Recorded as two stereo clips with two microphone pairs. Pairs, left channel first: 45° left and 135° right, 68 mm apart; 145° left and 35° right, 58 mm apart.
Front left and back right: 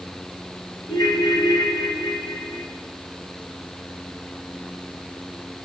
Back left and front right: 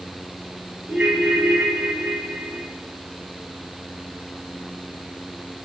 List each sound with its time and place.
0.9 s a ringtone: 30° left, 2.5 m